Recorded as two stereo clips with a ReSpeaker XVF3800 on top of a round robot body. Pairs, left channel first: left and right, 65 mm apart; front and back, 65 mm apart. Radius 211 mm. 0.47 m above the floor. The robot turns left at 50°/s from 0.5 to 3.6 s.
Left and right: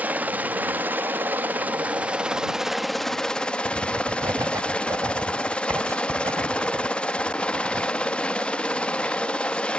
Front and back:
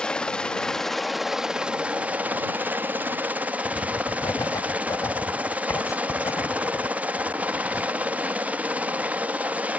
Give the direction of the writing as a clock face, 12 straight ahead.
1 o'clock.